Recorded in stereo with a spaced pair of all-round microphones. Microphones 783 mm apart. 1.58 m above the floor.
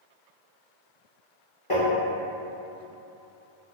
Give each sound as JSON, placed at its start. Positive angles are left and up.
{"t": 1.7, "sound": "tapping", "side_deg": 40, "distance_m": 1.1}